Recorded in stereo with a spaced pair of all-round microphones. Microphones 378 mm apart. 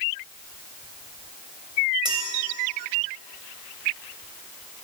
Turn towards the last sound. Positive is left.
turn(degrees=-10)  # may be behind; listen again after turning